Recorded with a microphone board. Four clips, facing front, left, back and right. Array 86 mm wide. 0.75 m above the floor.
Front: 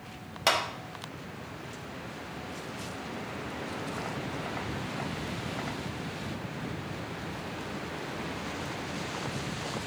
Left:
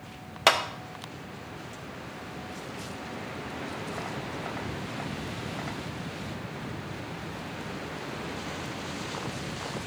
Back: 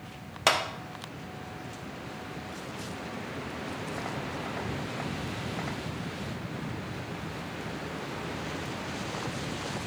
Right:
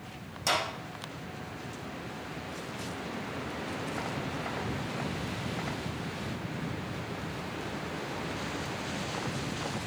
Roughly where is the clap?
Left.